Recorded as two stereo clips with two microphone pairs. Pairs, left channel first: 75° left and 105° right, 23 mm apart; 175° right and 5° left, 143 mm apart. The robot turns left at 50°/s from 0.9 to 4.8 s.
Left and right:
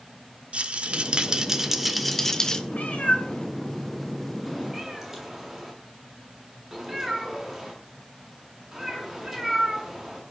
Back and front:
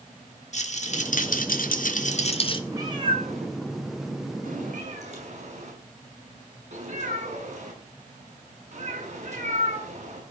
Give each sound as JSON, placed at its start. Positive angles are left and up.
{"t": 0.5, "sound": "a rattle", "azimuth_deg": -140, "distance_m": 1.7}
{"t": 2.7, "sound": "a cat meowing", "azimuth_deg": 75, "distance_m": 6.5}